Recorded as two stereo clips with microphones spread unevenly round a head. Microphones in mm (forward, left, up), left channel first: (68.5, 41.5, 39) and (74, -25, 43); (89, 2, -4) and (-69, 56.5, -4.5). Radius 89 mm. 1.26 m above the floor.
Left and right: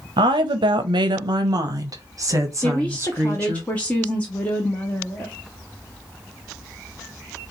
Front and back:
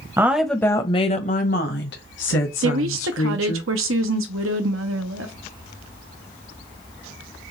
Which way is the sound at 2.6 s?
170° left.